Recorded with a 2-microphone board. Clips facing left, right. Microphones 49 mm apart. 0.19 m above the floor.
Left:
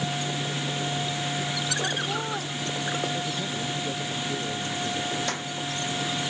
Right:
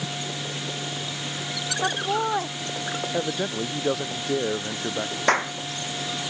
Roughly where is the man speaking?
Right.